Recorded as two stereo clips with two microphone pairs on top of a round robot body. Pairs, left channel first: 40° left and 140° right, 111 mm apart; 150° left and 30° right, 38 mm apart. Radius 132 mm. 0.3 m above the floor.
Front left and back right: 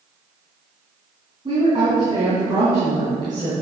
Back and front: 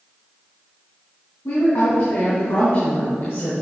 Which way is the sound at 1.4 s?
165° left.